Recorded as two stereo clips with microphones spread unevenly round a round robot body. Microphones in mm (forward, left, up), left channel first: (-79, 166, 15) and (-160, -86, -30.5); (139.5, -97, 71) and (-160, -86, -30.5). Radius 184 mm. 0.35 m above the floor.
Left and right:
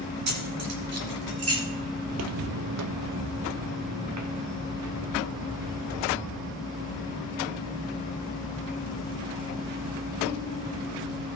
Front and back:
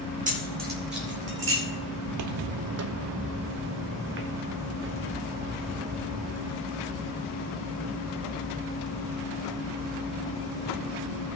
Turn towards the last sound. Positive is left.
turn(degrees=-125)